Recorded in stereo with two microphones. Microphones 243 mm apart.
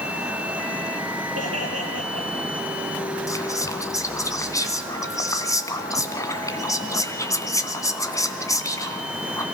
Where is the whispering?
15° left (ahead or behind), 2.5 m.